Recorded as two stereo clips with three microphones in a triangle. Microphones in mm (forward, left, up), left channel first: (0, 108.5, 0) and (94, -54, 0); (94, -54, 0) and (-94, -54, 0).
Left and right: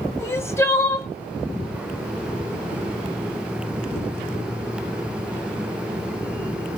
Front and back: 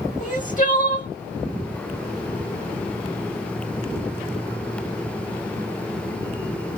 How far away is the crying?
About 1.0 m.